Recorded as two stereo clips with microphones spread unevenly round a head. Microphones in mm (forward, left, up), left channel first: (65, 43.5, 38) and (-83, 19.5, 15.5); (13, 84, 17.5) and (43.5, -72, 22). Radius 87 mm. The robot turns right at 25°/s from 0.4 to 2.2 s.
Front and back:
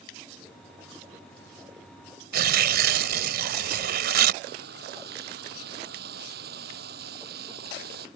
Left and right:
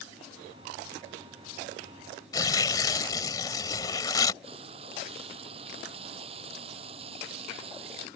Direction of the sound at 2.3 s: 170° left.